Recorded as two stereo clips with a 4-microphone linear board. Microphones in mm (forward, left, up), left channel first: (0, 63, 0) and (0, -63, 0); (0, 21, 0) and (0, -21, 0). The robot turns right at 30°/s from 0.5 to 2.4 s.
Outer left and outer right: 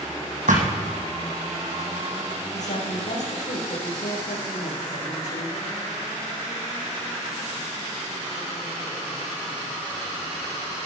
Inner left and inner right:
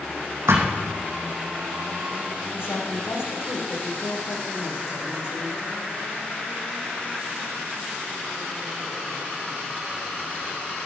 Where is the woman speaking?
65° left (ahead or behind), 5.5 m.